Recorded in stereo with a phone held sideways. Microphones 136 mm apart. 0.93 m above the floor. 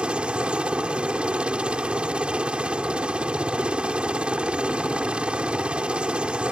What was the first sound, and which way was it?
A helicopter, 5° right (ahead or behind).